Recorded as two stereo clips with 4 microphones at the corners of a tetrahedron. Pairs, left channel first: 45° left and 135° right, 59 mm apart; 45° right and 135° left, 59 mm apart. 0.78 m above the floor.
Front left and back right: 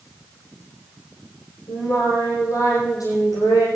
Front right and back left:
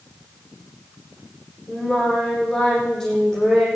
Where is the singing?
40° left, 10 m.